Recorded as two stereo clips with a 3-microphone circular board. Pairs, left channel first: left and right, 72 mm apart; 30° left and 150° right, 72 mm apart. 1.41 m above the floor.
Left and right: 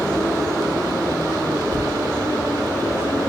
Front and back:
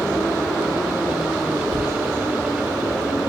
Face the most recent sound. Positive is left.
turn(degrees=-115)